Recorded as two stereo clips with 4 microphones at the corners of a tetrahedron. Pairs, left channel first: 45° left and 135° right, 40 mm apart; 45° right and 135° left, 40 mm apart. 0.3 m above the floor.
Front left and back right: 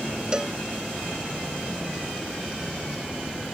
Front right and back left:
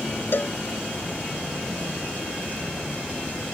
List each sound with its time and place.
0.3 s a cowbell: 65° right